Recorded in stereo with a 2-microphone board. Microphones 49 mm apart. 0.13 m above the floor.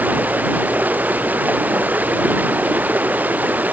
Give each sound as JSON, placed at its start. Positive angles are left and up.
{"t": 0.0, "sound": "running water", "side_deg": -35}